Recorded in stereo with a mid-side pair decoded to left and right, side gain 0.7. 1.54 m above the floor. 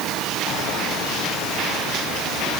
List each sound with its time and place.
Only background noise.